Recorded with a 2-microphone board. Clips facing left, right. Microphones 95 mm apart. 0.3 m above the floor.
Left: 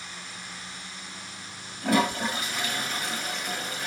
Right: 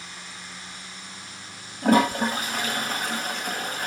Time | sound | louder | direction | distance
1.8 | a toilet flushing | right 5 dB | 45° right (ahead or behind) | 1.8 m